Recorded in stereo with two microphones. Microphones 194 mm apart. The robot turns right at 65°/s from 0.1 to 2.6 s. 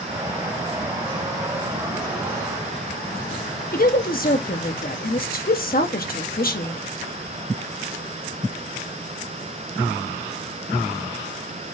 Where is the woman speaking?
50° left (ahead or behind), 1.1 m.